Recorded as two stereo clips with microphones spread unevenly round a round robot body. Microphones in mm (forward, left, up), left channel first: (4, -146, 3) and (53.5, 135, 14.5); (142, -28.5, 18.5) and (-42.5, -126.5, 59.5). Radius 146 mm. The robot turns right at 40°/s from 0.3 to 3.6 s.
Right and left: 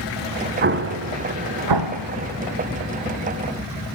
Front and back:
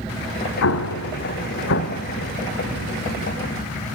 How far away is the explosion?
About 0.9 m.